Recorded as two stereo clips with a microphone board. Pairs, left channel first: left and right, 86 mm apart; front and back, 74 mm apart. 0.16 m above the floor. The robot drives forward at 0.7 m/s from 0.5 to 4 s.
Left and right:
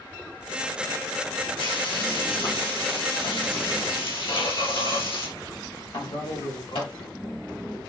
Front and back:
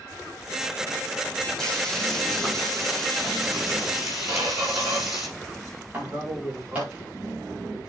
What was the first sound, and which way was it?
Frying, 80° left.